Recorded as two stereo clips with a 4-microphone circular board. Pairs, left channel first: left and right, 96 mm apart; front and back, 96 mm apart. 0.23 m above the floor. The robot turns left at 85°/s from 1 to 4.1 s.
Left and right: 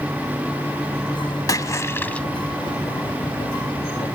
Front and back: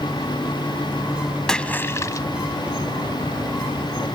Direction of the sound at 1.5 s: 80° left.